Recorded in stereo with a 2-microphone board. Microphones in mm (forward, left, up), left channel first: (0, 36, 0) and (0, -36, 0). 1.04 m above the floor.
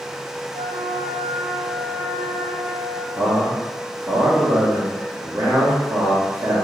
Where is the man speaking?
35° right (ahead or behind), 1.0 m.